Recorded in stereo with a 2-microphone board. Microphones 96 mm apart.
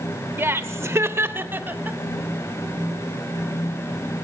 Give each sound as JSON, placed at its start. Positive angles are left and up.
{"t": 0.4, "sound": "laughter", "side_deg": -25, "distance_m": 0.8}